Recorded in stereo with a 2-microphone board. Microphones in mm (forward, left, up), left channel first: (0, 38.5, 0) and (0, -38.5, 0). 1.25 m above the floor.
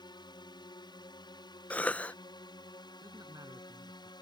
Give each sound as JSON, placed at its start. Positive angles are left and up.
{"t": 0.0, "sound": "a drone", "side_deg": 65}
{"t": 1.7, "sound": "a cough", "side_deg": 20}
{"t": 3.0, "sound": "a man speaking", "side_deg": -50}